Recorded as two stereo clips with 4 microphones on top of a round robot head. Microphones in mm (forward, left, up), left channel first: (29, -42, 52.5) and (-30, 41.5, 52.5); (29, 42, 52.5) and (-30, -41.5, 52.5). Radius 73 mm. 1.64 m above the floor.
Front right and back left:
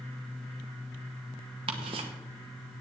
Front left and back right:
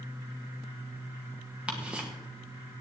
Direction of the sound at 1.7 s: 155° left.